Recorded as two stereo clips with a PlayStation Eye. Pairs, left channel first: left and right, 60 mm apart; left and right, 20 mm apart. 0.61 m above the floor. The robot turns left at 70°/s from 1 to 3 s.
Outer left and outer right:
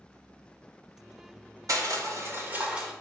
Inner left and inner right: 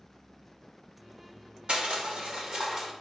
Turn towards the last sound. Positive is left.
turn(degrees=180)